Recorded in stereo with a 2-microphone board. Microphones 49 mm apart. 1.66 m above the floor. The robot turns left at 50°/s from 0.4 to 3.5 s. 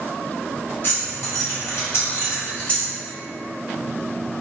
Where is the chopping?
No chopping in this recording.